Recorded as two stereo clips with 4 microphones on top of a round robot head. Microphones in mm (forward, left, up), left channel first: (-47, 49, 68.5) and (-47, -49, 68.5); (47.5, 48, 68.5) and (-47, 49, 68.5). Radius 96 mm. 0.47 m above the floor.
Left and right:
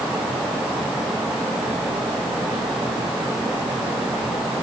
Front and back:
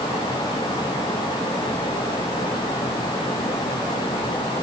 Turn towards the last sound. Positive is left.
No sound to turn to.